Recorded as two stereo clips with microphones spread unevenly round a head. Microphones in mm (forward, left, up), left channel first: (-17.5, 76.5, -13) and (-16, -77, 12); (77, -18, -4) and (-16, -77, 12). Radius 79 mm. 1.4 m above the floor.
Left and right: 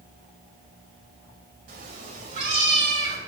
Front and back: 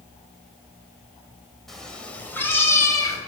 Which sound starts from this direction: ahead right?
A cat meowing, at 1.7 s.